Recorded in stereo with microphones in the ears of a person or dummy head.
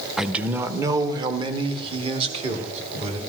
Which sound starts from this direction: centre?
A man speaking, at 0.2 s.